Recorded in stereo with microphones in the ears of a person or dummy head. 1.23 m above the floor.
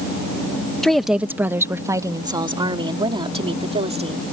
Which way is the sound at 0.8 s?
5° left (ahead or behind).